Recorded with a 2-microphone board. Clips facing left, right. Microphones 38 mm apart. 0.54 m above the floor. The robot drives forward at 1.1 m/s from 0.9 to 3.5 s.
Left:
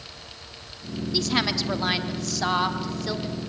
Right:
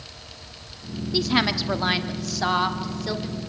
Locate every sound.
1.1 s a woman speaking: 10° right (ahead or behind), 1.2 m; by 3.4 s 5° right (ahead or behind), 2 m